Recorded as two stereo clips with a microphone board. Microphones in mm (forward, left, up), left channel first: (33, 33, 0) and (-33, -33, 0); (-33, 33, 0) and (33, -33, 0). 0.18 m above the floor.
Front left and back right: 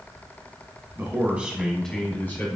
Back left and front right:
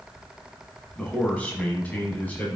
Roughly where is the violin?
No violin in this recording.